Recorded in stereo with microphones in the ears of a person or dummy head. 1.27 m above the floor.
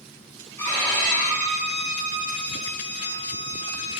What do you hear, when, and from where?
0.6 s a violin: 20° left (ahead or behind), 1.8 m